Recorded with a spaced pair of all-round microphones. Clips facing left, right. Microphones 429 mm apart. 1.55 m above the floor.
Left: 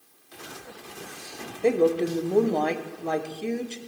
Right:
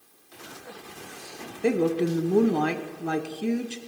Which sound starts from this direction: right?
A woman speaking, at 1.6 s.